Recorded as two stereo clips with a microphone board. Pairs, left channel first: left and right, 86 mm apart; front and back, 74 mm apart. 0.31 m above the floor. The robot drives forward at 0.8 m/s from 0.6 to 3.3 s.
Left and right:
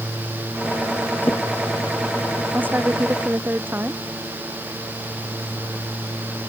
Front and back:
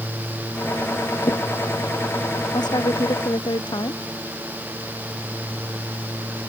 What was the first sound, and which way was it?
A drawer, 25° left.